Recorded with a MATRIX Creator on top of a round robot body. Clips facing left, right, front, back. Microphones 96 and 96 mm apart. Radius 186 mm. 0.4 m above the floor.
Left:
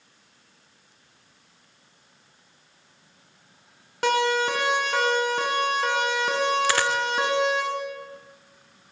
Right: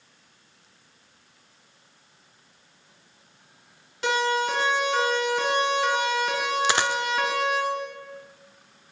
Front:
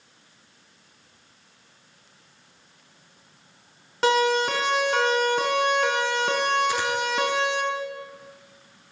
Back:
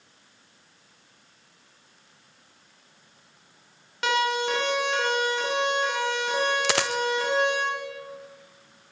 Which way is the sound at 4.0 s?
55° left.